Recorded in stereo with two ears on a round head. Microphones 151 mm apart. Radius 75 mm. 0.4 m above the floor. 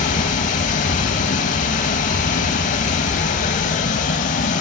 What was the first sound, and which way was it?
Running water, 40° left (ahead or behind).